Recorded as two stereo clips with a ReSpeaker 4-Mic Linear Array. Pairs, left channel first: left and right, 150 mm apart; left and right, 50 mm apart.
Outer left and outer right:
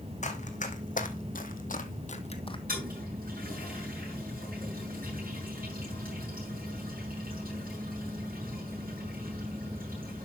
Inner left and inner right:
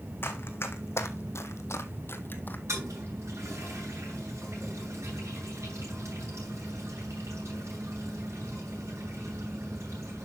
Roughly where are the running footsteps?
Left.